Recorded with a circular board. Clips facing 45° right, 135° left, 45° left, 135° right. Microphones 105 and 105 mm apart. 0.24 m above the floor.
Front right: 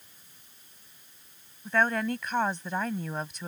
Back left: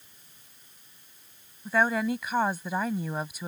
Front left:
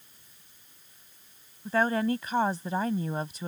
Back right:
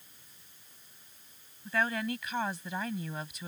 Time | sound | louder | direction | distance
1.6 | a woman speaking | back left 1 dB, front left 6 dB | 55° left | ?